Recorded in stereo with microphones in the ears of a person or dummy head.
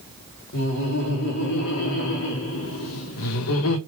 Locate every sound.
0.5 s laughter: 55° left (ahead or behind), 3.5 m; by 3.8 s 80° left, 1.9 m